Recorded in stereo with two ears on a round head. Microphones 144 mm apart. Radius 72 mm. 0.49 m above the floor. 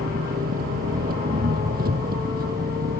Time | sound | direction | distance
0.0 | an engine running | 60° right (ahead or behind) | ?